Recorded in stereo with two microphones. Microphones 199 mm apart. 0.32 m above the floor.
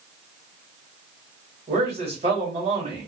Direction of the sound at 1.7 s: 35° right (ahead or behind).